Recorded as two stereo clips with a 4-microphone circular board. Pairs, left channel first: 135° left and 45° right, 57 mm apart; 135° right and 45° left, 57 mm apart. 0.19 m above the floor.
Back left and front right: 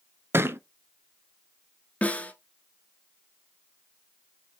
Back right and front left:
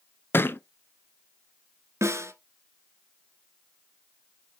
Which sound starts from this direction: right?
A thud, at 0.3 s.